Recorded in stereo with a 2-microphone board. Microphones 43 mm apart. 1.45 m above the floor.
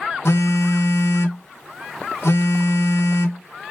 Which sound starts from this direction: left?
A phone buzzing, at 0.2 s.